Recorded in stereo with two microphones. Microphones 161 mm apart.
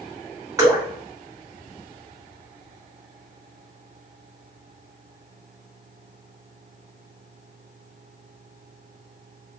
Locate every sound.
0.6 s dripping: 20° right (ahead or behind), 1.9 m